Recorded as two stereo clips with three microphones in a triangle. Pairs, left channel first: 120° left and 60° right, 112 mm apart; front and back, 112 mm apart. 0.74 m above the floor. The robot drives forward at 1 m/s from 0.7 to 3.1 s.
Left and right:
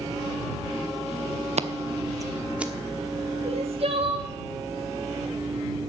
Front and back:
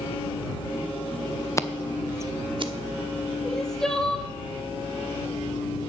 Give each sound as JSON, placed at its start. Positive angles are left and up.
{"t": 1.6, "sound": "scissors", "azimuth_deg": -65, "distance_m": 0.8}
{"t": 3.4, "sound": "crying", "azimuth_deg": -85, "distance_m": 1.5}